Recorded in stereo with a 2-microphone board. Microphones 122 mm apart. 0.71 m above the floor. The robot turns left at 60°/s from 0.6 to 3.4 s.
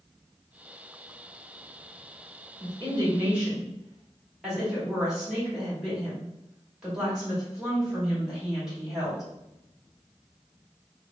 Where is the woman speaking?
125° right, 1.9 m; by 9.2 s 175° right, 1.9 m.